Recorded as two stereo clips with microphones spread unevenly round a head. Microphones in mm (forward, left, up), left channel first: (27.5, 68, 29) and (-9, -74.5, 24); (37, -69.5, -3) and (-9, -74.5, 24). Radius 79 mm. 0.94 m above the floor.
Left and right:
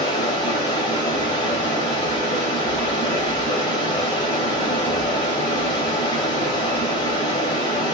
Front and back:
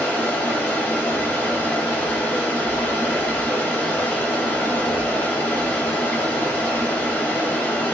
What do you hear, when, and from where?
0.0 s running water: 110° left, 0.8 m